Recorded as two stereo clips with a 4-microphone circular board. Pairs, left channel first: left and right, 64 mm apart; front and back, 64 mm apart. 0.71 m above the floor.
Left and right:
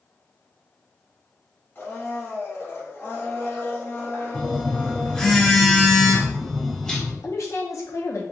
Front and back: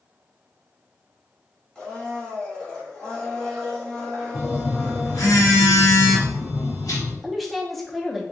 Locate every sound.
1.8 s a blender: 70° left, 1.1 m
4.3 s a phone buzzing: 10° left, 0.9 m
7.2 s a woman speaking: 85° left, 0.8 m